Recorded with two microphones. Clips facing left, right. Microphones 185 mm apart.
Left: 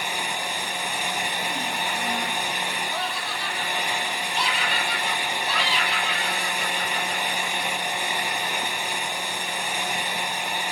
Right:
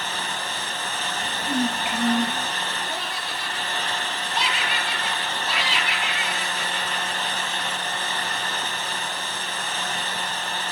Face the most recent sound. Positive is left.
turn(degrees=-85)